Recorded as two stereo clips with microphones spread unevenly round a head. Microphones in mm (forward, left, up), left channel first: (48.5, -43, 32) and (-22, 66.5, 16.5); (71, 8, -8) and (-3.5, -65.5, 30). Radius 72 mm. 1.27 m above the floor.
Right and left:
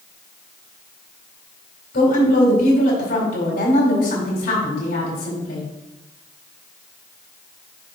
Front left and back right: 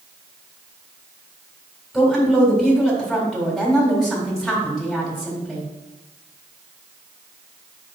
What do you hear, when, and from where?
1.9 s a woman speaking: 45° right, 4 m